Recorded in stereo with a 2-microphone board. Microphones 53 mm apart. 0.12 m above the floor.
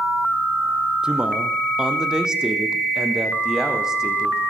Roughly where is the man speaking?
Centre.